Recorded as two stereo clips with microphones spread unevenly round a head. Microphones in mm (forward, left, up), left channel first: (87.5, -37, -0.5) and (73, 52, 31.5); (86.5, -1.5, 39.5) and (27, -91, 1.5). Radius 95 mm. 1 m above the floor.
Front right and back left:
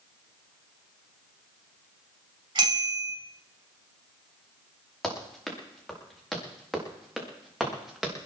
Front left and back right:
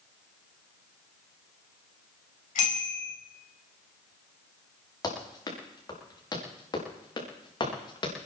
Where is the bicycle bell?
65° left, 4 m.